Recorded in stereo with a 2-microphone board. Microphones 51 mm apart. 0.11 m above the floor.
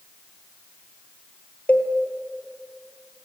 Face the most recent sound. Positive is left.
turn(degrees=25)  # may be behind; listen again after turning